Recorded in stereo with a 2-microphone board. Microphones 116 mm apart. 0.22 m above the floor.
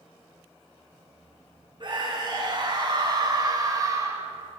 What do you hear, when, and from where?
1.8 s a scream: 50° right (ahead or behind), 2.5 m; by 4.2 s 30° right (ahead or behind), 1.4 m